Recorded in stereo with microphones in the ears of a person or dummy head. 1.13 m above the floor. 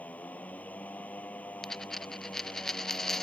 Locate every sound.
0.0 s a motorcycle: 15° left (ahead or behind)
1.6 s a dropped coin: centre (ahead or behind)